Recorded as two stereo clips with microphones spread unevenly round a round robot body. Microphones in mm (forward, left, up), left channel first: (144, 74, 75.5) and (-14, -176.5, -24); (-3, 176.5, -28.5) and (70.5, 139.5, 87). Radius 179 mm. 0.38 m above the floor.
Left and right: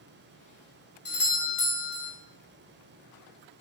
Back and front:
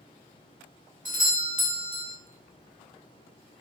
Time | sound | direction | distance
1.1 | a doorbell | 5° left | 2 m